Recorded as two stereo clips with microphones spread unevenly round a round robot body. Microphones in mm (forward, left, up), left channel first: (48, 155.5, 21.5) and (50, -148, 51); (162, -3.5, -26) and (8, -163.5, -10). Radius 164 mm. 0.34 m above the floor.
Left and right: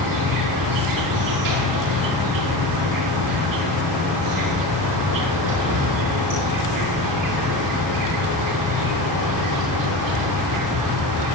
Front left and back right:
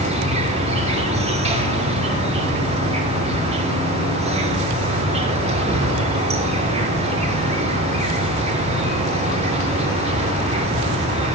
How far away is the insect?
About 6.5 m.